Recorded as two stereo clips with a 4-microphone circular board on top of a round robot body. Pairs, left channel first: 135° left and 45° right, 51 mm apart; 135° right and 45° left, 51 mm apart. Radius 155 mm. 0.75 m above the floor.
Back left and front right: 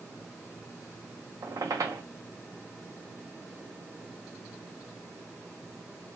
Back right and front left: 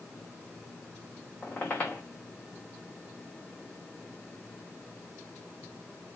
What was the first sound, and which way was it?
A squeak, 70° right.